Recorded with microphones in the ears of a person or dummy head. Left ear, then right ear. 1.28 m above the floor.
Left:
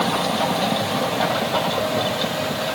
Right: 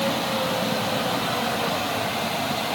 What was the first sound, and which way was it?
Only background noise.